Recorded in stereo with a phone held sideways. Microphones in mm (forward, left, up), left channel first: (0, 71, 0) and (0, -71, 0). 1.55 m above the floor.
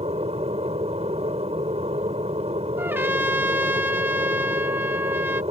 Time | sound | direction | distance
0.0 | an aircraft | 45° right (ahead or behind) | ?
2.8 | a trumpet | 15° right (ahead or behind) | ?